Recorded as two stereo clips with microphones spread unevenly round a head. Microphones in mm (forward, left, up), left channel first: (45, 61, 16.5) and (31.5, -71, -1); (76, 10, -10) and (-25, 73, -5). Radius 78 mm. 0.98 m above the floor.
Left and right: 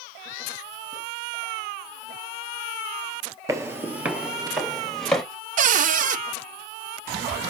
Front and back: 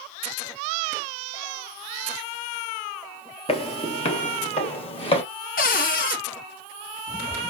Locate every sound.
3.5 s footsteps: 30° right, 1.3 m; by 5.2 s 5° left, 1.8 m
5.6 s a cupboard door: 70° right, 0.6 m